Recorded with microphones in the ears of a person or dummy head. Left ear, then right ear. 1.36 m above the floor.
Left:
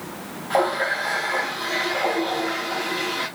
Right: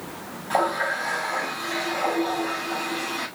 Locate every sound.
0.5 s a running tap: 10° right (ahead or behind), 7 m